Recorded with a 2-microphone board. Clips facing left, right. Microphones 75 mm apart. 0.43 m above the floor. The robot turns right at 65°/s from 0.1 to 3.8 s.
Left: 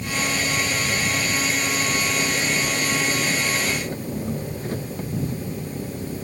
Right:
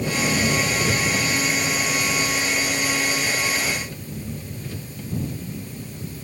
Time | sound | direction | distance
0.0 | an engine running | 100° right | ?